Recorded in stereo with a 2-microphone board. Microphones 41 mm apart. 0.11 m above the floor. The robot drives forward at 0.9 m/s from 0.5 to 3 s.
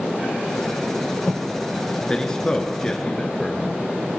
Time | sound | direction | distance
2.1 | a man speaking | 20° left (ahead or behind) | 1.3 m